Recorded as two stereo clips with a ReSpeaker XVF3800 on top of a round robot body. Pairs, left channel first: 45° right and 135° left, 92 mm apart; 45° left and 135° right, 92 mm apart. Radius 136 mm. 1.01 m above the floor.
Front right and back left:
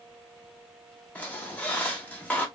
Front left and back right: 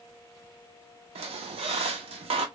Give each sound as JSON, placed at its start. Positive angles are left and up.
{"t": 1.1, "sound": "a squeak", "azimuth_deg": -120, "distance_m": 0.6}